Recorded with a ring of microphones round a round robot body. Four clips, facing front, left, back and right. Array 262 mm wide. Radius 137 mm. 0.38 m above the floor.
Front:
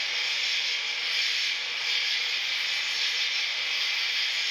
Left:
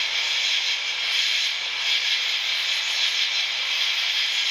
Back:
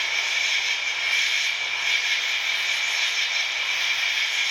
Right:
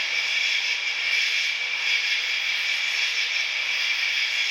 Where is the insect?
165° left, 1.1 m.